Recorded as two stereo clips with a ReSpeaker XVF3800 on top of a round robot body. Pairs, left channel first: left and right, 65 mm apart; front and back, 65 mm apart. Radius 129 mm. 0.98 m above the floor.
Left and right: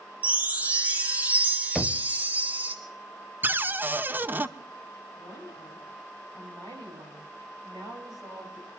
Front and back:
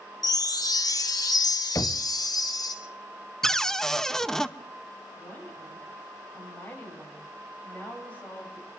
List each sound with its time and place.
0.2 s a chime: 20° right, 1.9 m
1.8 s knocking: 5° left, 0.7 m
3.4 s a cupboard door: 75° right, 0.9 m
5.2 s a woman speaking: 65° right, 6 m